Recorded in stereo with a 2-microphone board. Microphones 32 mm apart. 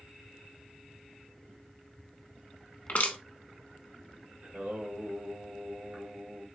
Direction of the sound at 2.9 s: 60° left (ahead or behind).